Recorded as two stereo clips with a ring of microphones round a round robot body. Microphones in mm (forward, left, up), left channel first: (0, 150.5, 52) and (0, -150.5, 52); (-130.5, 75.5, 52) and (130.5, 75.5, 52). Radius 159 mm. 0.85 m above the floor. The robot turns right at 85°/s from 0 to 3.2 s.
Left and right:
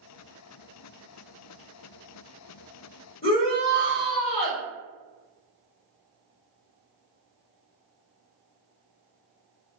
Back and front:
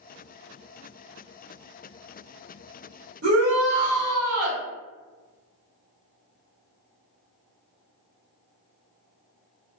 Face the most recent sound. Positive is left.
turn(degrees=30)